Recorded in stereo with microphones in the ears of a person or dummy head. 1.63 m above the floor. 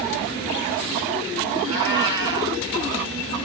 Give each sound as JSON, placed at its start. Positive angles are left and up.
{"t": 1.6, "sound": "a cat meowing", "side_deg": -20, "distance_m": 4.0}